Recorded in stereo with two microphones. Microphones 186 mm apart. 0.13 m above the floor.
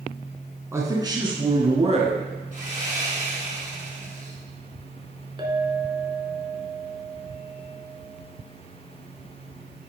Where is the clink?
25° right (ahead or behind), 1.0 m.